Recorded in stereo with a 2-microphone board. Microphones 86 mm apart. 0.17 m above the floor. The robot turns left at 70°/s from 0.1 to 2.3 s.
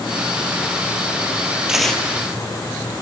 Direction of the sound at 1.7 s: 10° right (ahead or behind).